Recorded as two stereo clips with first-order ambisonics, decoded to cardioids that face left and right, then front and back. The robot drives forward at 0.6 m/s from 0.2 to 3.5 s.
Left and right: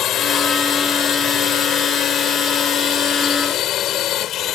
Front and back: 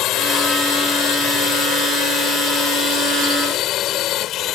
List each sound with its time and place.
0.0 s a drone: 40° left; by 4.6 s 45° left